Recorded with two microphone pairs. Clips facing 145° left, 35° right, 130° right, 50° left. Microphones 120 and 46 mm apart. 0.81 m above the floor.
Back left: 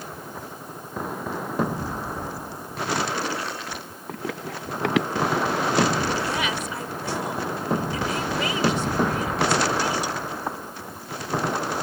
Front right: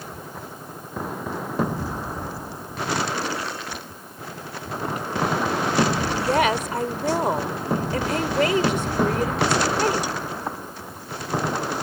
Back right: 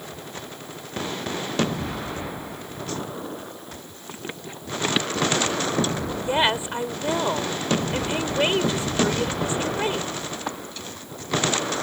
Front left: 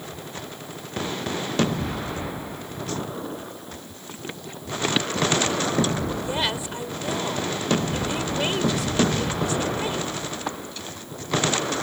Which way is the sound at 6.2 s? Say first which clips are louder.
Front right 6 dB, back right 4 dB; 70° right.